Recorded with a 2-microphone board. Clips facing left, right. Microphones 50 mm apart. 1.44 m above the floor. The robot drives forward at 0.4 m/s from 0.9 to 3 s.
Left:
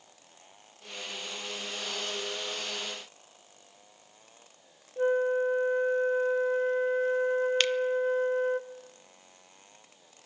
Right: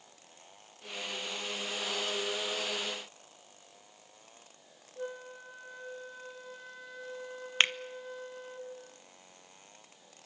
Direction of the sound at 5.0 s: 45° left (ahead or behind).